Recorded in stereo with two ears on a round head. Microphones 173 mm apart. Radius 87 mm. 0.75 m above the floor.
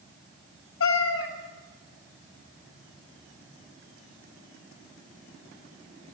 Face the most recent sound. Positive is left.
turn(degrees=80)